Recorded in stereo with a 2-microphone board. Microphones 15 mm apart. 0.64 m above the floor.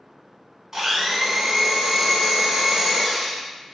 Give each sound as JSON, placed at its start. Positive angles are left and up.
{"t": 0.7, "sound": "a blender", "side_deg": -25, "distance_m": 1.0}